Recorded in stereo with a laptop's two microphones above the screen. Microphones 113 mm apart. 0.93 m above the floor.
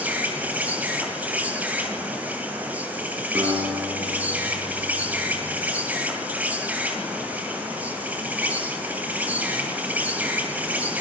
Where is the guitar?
30° right (ahead or behind), 10 m.